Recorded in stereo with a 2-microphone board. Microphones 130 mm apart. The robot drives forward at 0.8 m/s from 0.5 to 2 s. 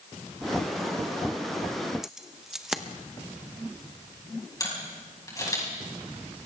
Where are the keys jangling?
5° right (ahead or behind), 0.8 m.